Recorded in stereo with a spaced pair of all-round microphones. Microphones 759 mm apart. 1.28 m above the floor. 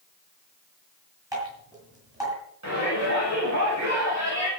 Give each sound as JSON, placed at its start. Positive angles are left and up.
{"t": 1.3, "sound": "dripping", "side_deg": -5, "distance_m": 9.5}
{"t": 2.6, "sound": "a shout", "side_deg": -20, "distance_m": 7.5}